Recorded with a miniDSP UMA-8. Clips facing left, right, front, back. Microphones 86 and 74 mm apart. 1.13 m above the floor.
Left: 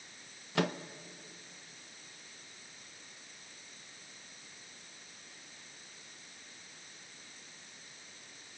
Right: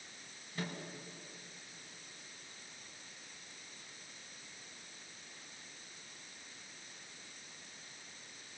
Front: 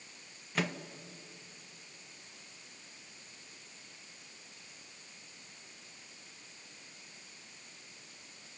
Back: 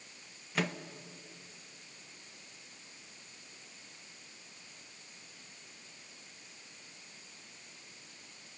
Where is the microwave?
90° left, 0.7 m.